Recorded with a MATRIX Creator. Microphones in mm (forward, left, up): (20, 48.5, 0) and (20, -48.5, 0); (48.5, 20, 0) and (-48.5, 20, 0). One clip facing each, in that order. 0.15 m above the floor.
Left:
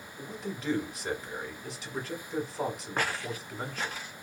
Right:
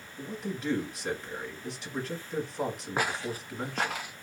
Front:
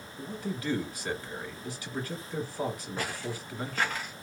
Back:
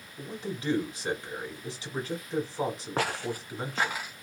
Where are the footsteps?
170° right, 0.6 m; by 4.1 s 95° right, 0.8 m.